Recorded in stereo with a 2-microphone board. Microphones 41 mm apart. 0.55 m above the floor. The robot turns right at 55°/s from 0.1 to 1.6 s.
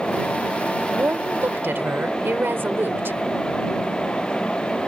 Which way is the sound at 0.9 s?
120° right.